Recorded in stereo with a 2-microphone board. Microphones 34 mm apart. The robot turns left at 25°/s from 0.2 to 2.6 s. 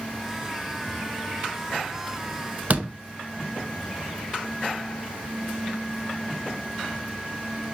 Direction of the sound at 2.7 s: 45° right (ahead or behind).